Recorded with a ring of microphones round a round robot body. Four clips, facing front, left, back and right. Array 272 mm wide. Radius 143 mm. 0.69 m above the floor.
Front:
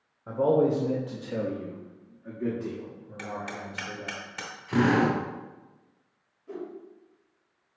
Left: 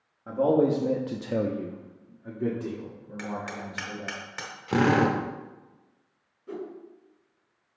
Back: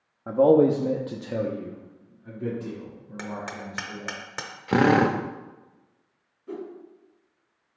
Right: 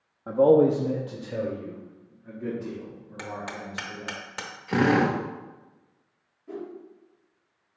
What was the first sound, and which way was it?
A man speaking, 160° right.